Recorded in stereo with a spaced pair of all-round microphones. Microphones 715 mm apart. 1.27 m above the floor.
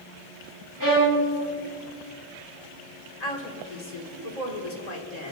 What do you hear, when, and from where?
0.8 s a violin: 25° right (ahead or behind), 2.5 m
3.2 s a woman speaking: 65° left (ahead or behind), 2.0 m